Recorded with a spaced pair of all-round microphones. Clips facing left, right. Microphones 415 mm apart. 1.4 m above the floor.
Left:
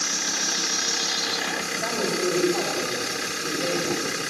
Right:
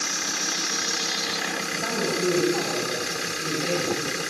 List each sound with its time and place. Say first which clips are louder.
1.7 s a man speaking: even; 20° right (ahead or behind), 7 m